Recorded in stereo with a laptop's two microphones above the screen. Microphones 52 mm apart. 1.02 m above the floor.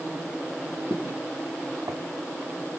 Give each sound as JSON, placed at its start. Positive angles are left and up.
{"t": 0.9, "sound": "footsteps", "side_deg": -65, "distance_m": 5.5}